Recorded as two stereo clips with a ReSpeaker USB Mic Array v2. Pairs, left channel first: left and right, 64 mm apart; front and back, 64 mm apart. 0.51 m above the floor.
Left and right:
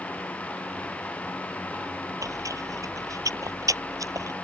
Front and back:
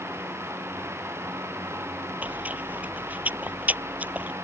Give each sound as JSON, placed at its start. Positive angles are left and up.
{"t": 2.2, "sound": "chewing", "azimuth_deg": -115}